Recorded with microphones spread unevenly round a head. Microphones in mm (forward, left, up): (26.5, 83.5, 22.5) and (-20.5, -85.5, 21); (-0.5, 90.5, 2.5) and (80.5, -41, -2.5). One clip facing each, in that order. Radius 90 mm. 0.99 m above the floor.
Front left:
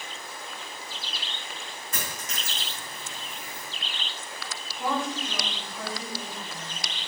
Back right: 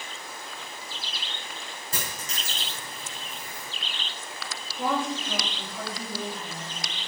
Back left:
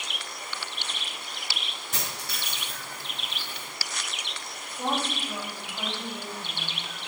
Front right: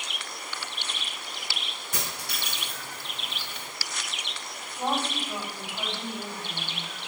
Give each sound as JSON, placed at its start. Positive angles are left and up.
{"t": 1.9, "sound": "a dropped coin", "azimuth_deg": -165, "distance_m": 4.0}
{"t": 4.8, "sound": "a woman speaking", "azimuth_deg": -155, "distance_m": 5.0}